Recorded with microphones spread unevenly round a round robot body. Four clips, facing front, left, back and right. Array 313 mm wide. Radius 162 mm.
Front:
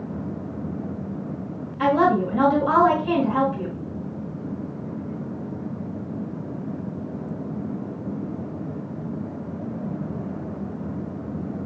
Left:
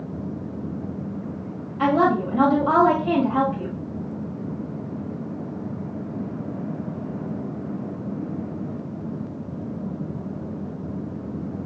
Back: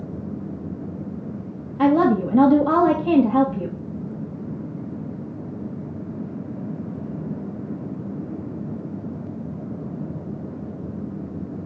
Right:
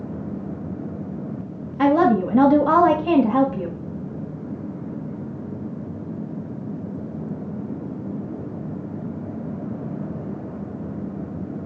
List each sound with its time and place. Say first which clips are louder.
1.8 s a woman speaking: right 3 dB, back 2 dB; 145° right, 1.8 m